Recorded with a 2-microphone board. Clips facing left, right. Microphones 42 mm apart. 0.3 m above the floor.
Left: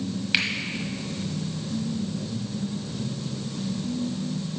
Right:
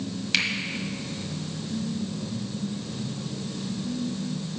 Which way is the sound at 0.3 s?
15° left (ahead or behind).